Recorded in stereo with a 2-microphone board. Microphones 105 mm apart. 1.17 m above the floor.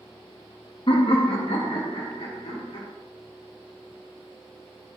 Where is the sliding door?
I don't hear a sliding door.